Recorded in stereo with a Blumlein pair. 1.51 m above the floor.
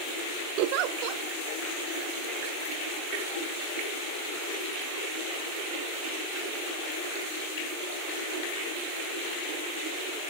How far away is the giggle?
About 0.9 m.